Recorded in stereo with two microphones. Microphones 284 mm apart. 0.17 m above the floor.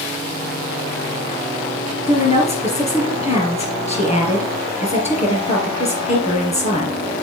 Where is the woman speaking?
20° left (ahead or behind), 4 m.